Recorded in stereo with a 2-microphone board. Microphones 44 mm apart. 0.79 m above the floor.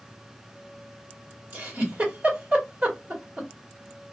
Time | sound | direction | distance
1.5 | a giggle | 35° right (ahead or behind) | 1.8 m